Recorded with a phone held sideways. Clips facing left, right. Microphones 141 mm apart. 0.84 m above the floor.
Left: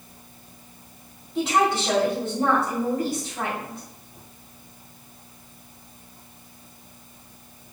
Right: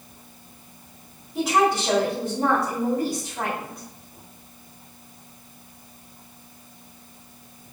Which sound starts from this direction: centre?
A woman speaking, at 1.4 s.